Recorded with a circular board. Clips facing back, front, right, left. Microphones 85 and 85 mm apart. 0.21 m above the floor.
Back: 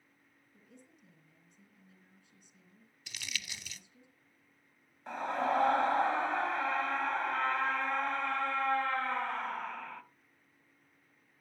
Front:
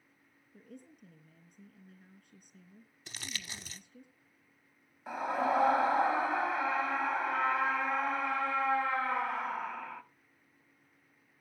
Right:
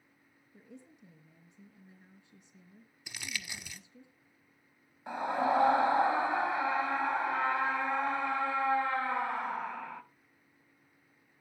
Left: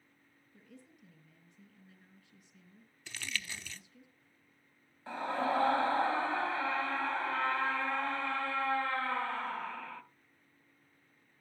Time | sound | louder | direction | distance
0.5 | a woman speaking | front 8 dB, right 4 dB | 30° right | 4.5 m
3.1 | crumpling | even, left 1 dB | 25° right | 0.8 m
5.1 | a scream | front 1 dB, right 3 dB | 70° right | 1.0 m